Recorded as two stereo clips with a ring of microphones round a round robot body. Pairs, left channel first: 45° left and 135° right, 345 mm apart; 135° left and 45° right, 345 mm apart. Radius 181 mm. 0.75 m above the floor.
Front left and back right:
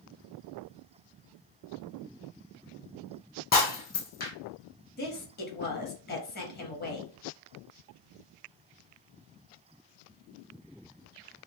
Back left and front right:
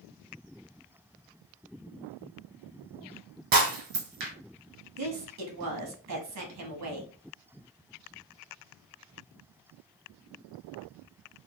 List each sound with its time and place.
3.5 s breaking glass: 20° right, 1.6 m
5.0 s a woman speaking: 15° right, 1.5 m